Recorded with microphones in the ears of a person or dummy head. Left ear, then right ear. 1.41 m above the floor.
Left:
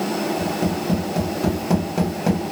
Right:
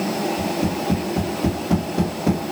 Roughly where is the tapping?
Left.